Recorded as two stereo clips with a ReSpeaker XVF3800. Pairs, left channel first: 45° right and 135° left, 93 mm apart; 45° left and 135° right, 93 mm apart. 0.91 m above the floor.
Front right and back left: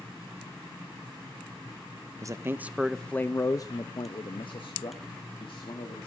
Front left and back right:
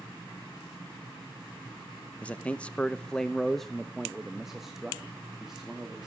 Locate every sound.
2.2 s a man speaking: 115° left, 0.7 m; by 6.1 s 50° right, 2 m